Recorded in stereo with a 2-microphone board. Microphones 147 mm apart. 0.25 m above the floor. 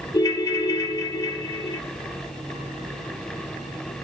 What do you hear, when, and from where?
0.1 s a ringtone: 25° left (ahead or behind), 1.1 m